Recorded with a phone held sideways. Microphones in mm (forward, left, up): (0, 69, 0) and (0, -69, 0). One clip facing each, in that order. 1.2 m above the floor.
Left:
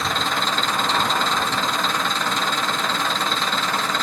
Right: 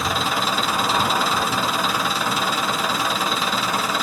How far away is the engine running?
About 0.8 m.